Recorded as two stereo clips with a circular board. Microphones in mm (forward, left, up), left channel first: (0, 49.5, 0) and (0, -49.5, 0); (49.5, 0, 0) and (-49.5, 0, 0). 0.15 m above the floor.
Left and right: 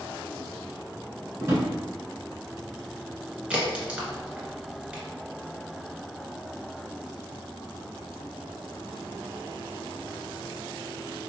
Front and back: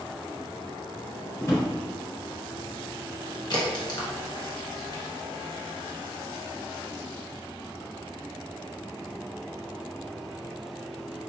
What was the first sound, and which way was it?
A drawer, 45° right.